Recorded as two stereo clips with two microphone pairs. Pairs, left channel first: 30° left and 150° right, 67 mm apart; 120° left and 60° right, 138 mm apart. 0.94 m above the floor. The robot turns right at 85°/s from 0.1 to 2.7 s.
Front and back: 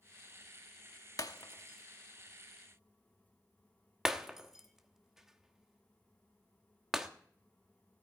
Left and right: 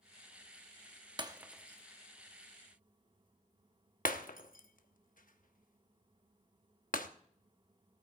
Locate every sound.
1.2 s breaking glass: straight ahead, 0.9 m; by 7.1 s 125° left, 0.9 m